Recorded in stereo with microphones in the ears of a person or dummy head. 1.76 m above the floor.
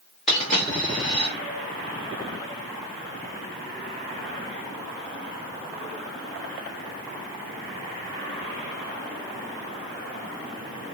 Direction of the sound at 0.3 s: 5° left (ahead or behind).